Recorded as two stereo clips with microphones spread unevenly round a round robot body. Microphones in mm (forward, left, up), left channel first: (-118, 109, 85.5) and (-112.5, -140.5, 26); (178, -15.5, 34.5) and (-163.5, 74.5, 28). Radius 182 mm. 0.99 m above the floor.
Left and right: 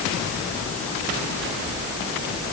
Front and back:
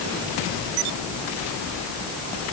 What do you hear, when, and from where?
Only background noise.